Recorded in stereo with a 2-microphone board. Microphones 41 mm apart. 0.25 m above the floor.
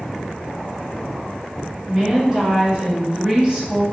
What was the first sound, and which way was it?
A woman speaking, 25° right (ahead or behind).